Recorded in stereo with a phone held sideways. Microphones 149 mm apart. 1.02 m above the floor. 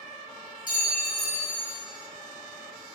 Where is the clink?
65° left (ahead or behind), 0.7 m.